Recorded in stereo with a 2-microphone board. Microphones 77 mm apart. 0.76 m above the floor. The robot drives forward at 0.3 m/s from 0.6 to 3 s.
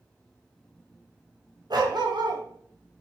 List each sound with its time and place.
1.7 s a dog barking: 60° right (ahead or behind), 1.7 m; by 2.4 s 70° right (ahead or behind), 1.6 m